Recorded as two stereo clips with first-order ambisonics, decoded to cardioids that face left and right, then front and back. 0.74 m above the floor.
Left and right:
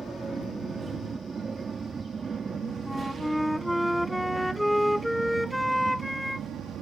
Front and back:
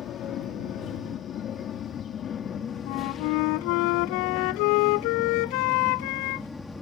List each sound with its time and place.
0.0 s an aircraft: 20° right; by 6.8 s 70° right
2.9 s a flute: straight ahead